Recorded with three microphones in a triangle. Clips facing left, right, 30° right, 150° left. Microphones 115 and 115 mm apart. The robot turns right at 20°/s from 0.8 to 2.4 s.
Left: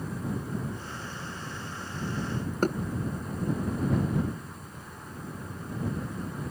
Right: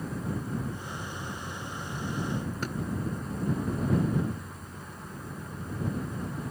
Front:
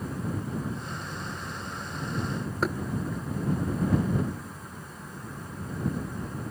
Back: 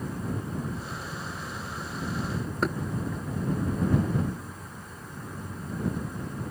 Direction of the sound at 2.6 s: 60° left.